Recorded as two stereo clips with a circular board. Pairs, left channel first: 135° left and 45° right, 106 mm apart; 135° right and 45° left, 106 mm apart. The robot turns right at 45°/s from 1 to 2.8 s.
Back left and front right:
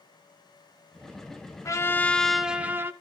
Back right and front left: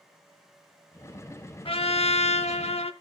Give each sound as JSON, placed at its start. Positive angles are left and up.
{"t": 1.6, "sound": "a trumpet", "azimuth_deg": -165, "distance_m": 0.6}